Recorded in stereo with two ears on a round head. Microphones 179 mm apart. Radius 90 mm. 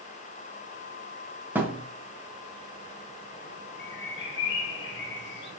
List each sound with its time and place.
1.6 s a thud: 10° right (ahead or behind), 1.6 m
3.8 s a bird: 55° left (ahead or behind), 1.7 m